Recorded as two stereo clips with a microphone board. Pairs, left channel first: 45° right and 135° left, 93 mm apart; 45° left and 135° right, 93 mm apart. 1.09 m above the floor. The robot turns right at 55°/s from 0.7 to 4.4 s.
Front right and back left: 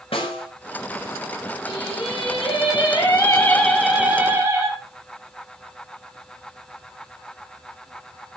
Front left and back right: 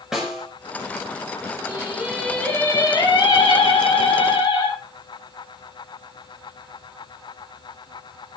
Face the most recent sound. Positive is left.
turn(degrees=75)